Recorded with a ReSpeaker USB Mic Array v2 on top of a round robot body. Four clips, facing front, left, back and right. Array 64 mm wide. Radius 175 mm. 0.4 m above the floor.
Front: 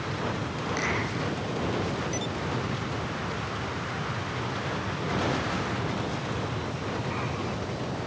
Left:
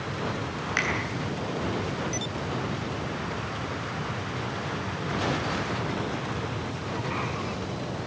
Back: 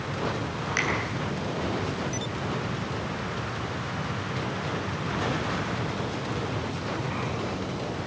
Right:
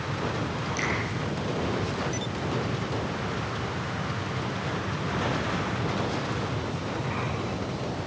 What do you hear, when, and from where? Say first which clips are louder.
0.8 s a finger snap: left 4 dB, back 3 dB; 115° left, 7 m